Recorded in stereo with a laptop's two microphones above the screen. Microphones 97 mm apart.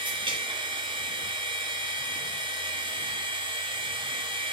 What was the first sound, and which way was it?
A machine running, 55° right (ahead or behind).